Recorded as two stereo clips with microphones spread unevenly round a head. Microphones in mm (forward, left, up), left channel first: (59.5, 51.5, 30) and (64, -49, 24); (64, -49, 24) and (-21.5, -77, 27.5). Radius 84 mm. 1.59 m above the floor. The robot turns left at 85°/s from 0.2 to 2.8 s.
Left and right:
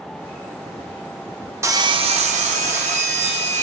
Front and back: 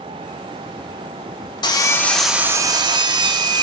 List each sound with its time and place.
1.6 s sawing: 20° right, 0.6 m; by 3.6 s 120° right, 0.6 m